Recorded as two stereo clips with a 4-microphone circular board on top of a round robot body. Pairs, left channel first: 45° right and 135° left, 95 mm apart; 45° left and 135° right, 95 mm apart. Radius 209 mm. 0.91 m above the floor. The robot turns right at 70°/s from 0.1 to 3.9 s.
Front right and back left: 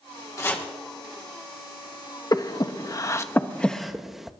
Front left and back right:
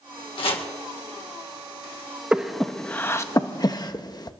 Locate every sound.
0.4 s chopping: 15° left, 1.9 m; by 0.7 s 35° left, 1.9 m
2.3 s breathing: 60° right, 1.1 m; by 4.3 s 50° left, 1.1 m